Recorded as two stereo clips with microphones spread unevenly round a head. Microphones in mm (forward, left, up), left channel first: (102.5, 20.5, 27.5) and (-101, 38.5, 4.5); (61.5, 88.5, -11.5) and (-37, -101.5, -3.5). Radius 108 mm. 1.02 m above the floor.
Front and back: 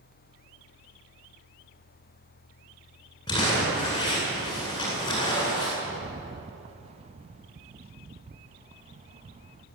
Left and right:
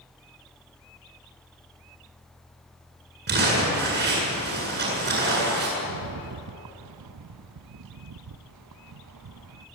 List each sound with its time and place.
3.3 s crumpling: 75° right, 8.5 m
5.8 s a rattle: 120° right, 0.5 m